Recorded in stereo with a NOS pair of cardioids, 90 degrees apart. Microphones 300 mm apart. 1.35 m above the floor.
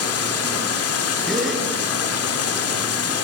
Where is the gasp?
Straight ahead, 9 m.